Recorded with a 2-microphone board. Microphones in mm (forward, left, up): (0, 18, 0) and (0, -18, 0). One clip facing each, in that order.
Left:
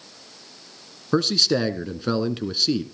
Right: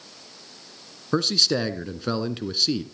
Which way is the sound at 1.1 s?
5° left (ahead or behind).